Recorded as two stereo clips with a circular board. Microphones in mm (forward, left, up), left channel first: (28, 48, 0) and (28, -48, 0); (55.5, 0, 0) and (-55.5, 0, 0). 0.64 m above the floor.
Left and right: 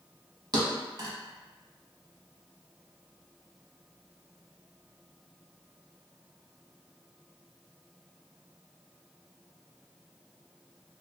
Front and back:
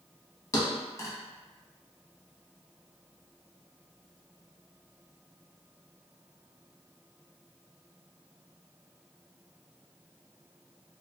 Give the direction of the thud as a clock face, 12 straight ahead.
2 o'clock.